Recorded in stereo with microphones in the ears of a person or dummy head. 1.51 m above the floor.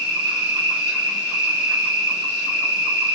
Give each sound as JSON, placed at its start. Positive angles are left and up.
{"t": 0.0, "sound": "an insect", "side_deg": -65, "distance_m": 1.3}